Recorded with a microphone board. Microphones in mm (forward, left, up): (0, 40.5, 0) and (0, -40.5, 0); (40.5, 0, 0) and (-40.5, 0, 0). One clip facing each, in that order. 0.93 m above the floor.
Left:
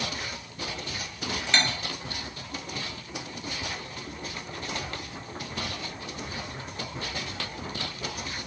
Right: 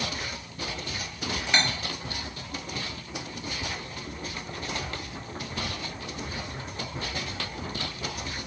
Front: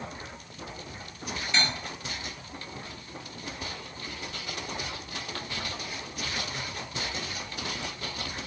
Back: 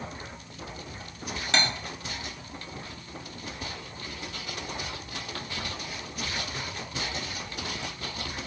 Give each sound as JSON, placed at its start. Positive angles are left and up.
{"t": 1.5, "sound": "cutlery clinking", "azimuth_deg": -170, "distance_m": 0.6}